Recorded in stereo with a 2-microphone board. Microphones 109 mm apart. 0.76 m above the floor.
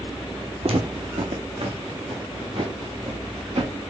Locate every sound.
0.6 s footsteps: 60° right (ahead or behind), 1.6 m; by 3.7 s 55° right (ahead or behind), 3.5 m